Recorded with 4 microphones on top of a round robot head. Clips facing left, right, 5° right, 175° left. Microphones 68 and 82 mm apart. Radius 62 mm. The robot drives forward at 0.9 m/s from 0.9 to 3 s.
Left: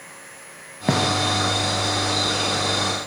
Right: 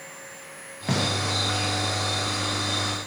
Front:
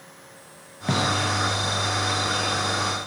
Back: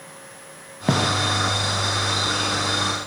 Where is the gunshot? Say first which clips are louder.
Left 5 dB, back 3 dB; 130° left, 1.0 m; by 1.1 s 135° left, 1.2 m.